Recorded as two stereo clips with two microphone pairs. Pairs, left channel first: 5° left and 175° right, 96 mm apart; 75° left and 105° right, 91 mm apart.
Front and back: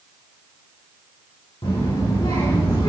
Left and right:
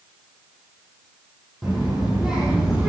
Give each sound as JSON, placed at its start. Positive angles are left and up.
{"t": 1.6, "sound": "a child speaking", "azimuth_deg": -15, "distance_m": 4.5}